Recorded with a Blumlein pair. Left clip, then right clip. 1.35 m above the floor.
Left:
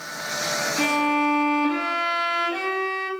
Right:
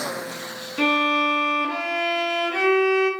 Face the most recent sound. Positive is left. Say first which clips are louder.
# right 4 dB
turn(degrees=-10)